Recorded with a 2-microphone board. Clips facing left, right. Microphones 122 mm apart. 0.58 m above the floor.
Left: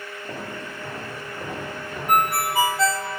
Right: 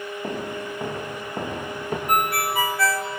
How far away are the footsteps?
About 8 m.